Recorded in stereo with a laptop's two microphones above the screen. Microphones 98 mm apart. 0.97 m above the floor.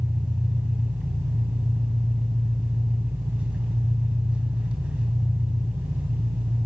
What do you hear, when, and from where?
0.0 s an engine running: 10° right (ahead or behind), 2.0 m